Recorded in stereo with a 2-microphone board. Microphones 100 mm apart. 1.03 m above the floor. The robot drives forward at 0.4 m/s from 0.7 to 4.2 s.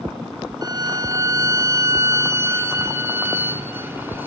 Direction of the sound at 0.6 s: 40° right (ahead or behind).